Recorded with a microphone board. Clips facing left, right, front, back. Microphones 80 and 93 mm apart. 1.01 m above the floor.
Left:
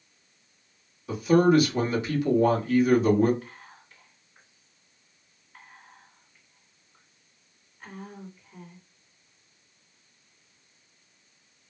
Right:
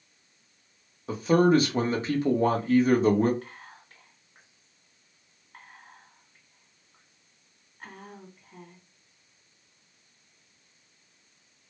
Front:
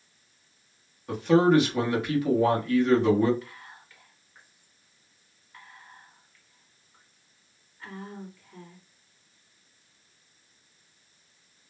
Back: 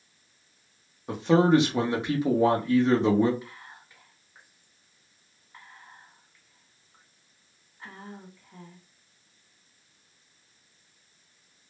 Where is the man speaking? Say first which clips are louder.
Left 1 dB, even; 120° right, 0.9 m.